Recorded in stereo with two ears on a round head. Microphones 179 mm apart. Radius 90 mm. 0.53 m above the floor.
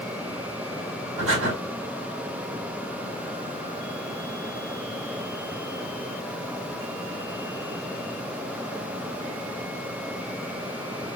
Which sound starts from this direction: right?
Breathing, at 1.2 s.